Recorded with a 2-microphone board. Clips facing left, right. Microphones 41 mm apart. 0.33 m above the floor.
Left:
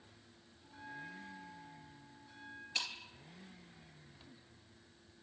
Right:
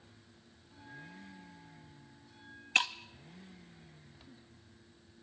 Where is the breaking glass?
60° right (ahead or behind), 1.1 m.